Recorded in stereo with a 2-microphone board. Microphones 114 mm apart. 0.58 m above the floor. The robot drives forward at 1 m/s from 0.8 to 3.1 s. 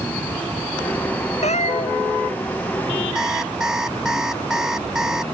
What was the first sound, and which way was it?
A cat meowing, 85° left.